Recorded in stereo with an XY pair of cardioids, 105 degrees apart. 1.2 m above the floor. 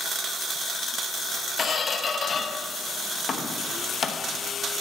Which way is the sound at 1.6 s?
40° left.